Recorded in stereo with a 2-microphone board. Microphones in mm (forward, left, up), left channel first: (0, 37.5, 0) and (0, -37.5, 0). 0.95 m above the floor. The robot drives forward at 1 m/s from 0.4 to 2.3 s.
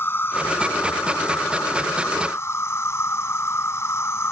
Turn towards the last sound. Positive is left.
turn(degrees=35)  # may be behind; listen again after turning